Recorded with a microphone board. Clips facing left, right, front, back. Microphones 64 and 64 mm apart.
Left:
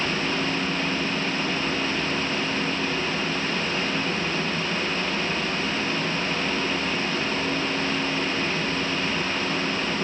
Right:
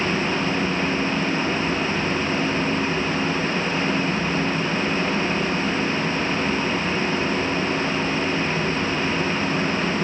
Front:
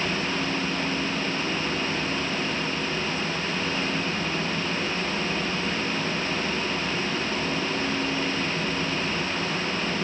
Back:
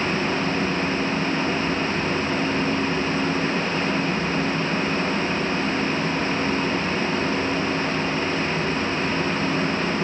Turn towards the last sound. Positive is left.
No sound to turn to.